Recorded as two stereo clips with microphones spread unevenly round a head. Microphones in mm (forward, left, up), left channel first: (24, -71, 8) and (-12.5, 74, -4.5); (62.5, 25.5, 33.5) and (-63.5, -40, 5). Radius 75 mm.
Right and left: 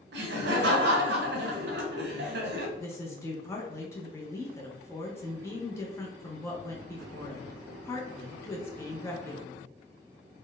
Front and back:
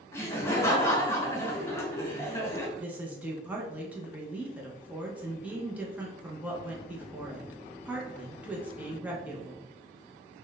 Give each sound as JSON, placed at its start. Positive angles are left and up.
{"t": 0.1, "sound": "laughter", "azimuth_deg": 105, "distance_m": 0.9}
{"t": 2.8, "sound": "a woman speaking", "azimuth_deg": -135, "distance_m": 0.6}